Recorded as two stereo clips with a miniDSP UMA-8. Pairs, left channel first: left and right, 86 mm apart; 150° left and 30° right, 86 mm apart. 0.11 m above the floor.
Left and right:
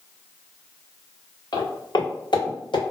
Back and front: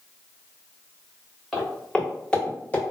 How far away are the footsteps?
About 1.7 m.